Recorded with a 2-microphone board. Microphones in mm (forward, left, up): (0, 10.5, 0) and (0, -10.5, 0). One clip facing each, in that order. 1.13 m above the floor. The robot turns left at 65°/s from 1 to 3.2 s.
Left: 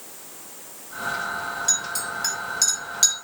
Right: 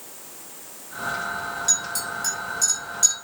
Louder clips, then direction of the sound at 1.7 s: Right 2 dB; centre (ahead or behind).